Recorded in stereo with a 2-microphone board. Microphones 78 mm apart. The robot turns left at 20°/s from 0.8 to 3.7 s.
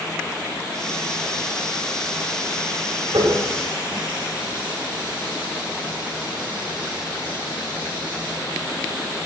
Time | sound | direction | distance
3.1 | a running tap | 80° right | 7.5 m